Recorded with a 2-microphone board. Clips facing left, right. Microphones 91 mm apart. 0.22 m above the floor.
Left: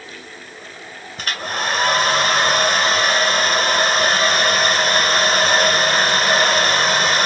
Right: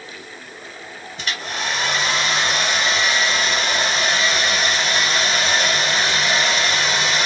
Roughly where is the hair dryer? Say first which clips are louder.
Left 3 dB; left.